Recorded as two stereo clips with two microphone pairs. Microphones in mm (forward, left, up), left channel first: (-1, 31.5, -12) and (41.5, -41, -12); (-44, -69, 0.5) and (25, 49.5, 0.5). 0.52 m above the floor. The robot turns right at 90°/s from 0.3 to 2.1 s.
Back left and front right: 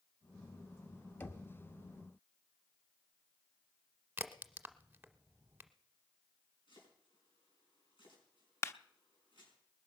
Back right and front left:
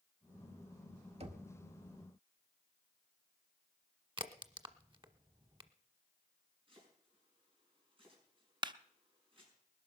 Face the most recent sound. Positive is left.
turn(degrees=90)